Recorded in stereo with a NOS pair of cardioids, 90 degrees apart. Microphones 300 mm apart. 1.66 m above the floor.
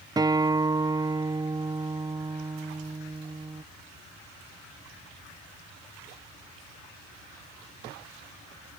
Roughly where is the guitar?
Ahead.